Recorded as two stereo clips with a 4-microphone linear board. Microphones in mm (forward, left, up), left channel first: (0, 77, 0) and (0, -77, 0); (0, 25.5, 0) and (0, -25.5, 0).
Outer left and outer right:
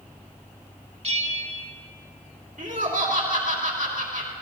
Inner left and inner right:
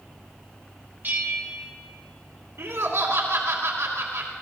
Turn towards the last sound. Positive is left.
turn(degrees=-60)  # may be behind; listen again after turning